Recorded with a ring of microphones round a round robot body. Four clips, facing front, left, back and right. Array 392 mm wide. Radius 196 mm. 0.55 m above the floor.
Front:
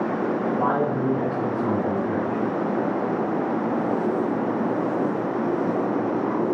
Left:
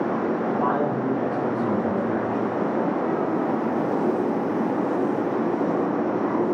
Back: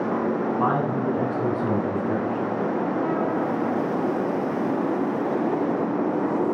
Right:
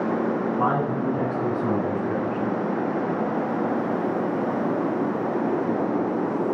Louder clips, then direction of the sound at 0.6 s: Even, front 1 dB; 140° right.